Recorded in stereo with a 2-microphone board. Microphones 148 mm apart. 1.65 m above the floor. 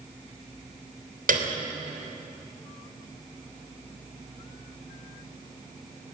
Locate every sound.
1.3 s a piano: 70° right (ahead or behind), 3 m